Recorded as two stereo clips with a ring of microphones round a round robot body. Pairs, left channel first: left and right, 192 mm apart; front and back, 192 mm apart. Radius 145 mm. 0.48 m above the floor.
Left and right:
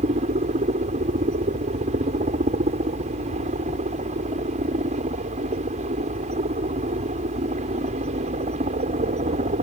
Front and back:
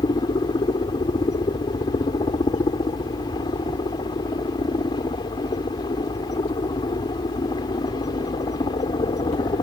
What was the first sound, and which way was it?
A helicopter, 60° right.